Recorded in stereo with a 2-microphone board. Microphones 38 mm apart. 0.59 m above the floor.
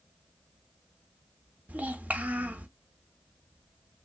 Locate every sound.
1.7 s a child speaking: 45° right (ahead or behind), 0.7 m